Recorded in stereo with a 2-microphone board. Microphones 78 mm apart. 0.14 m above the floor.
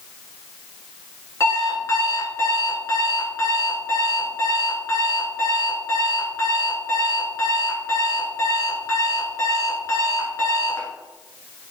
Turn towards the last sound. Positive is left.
turn(degrees=45)  # may be behind; listen again after turning